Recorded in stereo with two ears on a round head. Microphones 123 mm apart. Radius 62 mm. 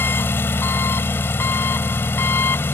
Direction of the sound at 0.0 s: 15° left (ahead or behind).